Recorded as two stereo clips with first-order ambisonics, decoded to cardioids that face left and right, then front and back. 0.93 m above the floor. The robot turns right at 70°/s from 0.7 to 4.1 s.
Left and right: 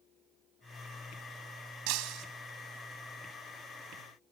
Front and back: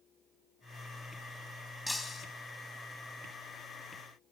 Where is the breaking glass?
85° right, 2.5 m; by 2.3 s 60° right, 2.5 m.